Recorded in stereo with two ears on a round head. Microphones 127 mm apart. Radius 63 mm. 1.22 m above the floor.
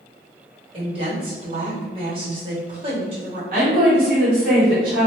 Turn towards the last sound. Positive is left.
turn(degrees=-60)  # may be behind; listen again after turning